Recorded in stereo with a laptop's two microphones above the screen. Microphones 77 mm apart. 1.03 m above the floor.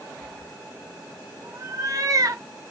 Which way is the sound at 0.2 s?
45° right (ahead or behind).